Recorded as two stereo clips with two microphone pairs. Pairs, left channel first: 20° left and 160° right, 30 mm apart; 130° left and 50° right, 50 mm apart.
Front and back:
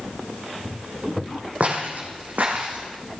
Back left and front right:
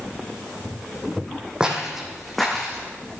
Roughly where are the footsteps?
Behind right.